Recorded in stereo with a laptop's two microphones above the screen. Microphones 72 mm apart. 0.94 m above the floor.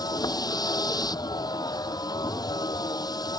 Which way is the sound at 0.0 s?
65° left (ahead or behind).